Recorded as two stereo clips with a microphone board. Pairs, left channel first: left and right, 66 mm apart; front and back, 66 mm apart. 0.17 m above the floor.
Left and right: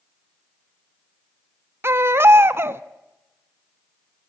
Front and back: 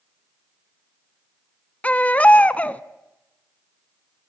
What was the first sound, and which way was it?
A baby crying, 60° right.